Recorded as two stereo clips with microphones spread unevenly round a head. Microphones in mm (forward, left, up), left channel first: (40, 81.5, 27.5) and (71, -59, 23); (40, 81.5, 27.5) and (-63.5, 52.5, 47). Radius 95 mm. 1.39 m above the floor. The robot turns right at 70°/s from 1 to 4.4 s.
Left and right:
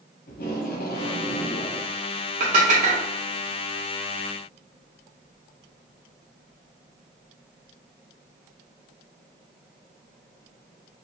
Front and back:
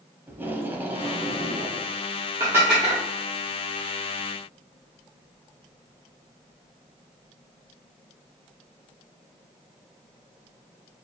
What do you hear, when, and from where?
0.3 s tape being pulled: 120° left, 0.8 m; by 1.9 s 175° right, 0.8 m
2.4 s dishes clattering: 115° right, 0.6 m; by 3.0 s 70° right, 0.6 m